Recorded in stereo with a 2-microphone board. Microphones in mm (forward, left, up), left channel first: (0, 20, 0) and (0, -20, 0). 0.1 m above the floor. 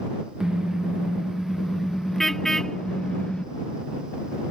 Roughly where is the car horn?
Centre.